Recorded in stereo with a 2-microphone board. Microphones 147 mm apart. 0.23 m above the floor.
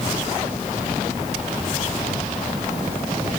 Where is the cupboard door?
No cupboard door in this recording.